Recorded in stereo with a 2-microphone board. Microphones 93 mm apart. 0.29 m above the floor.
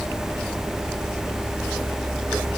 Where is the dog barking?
I don't hear a dog barking.